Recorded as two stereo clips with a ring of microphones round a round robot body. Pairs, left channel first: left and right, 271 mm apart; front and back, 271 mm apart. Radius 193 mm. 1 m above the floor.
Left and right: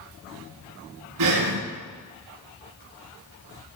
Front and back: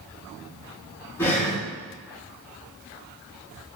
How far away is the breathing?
About 5.5 m.